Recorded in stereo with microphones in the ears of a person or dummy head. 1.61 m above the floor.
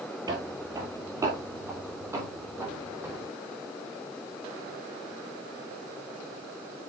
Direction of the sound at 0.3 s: 20° right (ahead or behind).